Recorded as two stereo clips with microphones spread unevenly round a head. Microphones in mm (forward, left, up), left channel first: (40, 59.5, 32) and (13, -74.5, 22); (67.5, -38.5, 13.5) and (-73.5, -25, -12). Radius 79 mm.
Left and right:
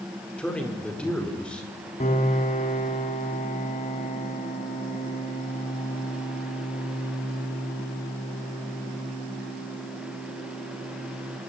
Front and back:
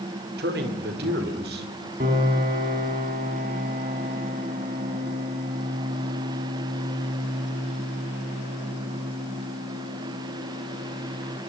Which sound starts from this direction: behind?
A man speaking, at 0.4 s.